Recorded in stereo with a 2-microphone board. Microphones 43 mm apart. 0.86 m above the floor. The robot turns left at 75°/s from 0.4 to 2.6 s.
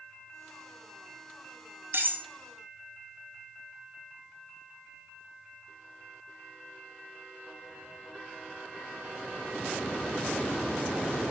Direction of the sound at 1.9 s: 55° right (ahead or behind).